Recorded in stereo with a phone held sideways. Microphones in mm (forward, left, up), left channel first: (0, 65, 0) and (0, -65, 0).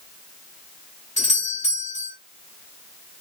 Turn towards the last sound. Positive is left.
turn(degrees=65)  # may be behind; listen again after turning